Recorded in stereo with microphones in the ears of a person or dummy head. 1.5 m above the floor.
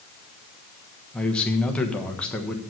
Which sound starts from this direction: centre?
A man speaking, at 1.1 s.